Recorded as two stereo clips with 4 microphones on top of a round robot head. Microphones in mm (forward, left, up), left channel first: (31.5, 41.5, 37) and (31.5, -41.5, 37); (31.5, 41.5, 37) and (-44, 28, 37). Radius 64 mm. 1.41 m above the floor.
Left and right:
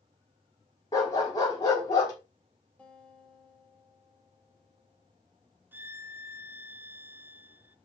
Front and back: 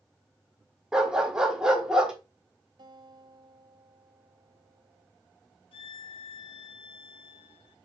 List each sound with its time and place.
0.9 s a dog barking: 115° left, 1.0 m
2.8 s a guitar: 165° left, 1.7 m
5.7 s a violin: 20° right, 0.5 m